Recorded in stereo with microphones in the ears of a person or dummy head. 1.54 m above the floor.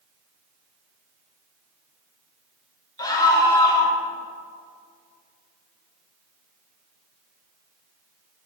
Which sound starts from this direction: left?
A scream, at 3.0 s.